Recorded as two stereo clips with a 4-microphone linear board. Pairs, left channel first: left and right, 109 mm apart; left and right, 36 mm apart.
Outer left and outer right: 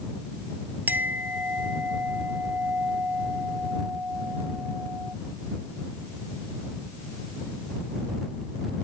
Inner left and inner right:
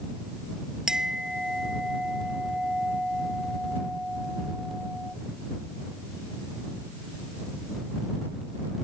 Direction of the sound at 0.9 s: 15° right (ahead or behind).